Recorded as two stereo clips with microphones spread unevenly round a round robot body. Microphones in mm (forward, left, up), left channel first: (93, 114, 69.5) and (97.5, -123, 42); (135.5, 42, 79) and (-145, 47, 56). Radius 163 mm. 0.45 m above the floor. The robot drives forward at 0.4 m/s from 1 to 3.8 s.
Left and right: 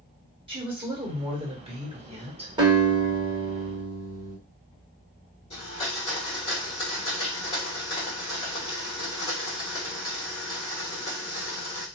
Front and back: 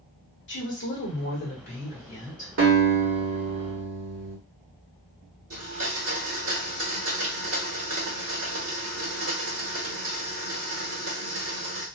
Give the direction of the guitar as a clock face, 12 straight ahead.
5 o'clock.